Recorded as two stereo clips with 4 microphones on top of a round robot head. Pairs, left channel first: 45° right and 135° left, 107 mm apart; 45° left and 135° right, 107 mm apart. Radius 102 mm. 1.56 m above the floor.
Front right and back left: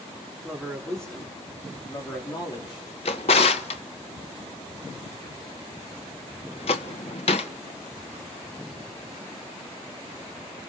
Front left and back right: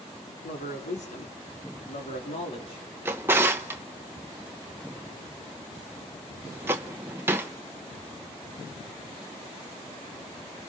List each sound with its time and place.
0.4 s a man speaking: 50° left, 4.5 m; by 2.9 s straight ahead, 4.5 m
3.0 s a drawer: 70° right, 0.8 m